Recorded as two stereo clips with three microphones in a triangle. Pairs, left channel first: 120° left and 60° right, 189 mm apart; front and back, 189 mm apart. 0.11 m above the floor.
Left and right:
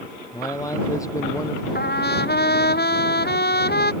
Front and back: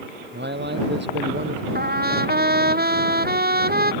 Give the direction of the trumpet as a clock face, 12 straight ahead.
7 o'clock.